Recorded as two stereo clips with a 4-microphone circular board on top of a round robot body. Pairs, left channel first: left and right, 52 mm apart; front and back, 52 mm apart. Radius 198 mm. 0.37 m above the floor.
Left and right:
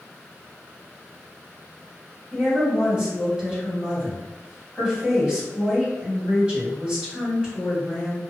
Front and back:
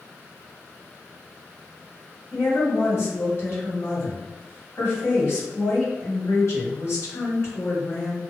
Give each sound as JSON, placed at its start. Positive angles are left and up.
{"t": 2.3, "sound": "a woman speaking", "azimuth_deg": -20, "distance_m": 1.8}